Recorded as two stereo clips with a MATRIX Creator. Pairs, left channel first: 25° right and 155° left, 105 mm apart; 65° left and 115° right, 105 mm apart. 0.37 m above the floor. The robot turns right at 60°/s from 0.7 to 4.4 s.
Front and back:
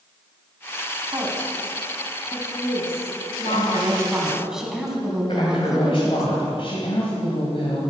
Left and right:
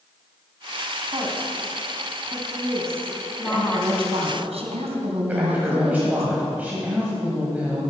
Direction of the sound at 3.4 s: 175° right.